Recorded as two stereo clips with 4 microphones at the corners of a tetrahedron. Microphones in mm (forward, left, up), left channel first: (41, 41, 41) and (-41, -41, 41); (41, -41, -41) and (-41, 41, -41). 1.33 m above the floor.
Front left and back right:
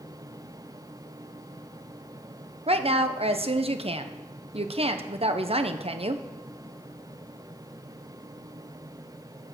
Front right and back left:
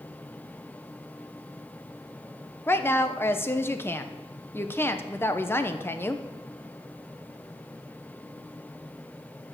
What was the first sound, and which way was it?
A woman speaking, 110° right.